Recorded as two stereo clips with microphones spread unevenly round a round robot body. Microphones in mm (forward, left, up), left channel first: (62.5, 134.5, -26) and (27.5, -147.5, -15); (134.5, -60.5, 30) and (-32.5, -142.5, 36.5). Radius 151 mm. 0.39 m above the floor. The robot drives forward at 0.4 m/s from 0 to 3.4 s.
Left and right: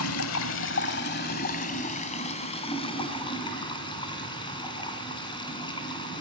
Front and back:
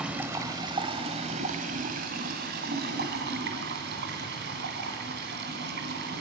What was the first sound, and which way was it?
Running water, 120° left.